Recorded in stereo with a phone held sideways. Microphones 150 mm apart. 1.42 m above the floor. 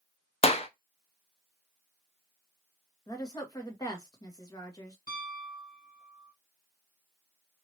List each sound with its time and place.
0.4 s a clap: 40° left (ahead or behind), 0.6 m
3.1 s a woman speaking: 25° left (ahead or behind), 1.3 m
5.1 s a piano: 60° left (ahead or behind), 2 m